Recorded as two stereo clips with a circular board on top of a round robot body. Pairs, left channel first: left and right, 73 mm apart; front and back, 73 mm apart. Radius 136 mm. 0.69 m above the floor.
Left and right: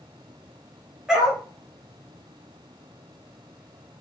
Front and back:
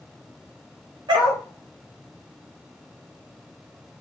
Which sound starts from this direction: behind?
A dog barking, at 1.1 s.